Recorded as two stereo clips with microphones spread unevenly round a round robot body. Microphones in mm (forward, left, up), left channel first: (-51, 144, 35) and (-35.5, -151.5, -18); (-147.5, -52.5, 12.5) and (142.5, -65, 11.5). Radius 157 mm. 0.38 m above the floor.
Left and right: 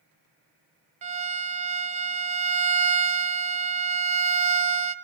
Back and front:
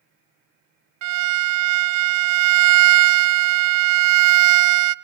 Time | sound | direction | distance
1.0 | a violin | 30° right | 0.6 m